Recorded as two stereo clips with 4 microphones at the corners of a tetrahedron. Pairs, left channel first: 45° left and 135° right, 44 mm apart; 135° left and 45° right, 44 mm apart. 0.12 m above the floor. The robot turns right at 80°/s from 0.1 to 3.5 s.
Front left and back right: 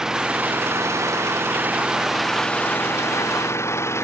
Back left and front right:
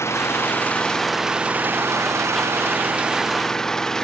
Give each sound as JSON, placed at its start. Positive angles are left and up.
{"t": 0.0, "sound": "an engine running", "azimuth_deg": 145}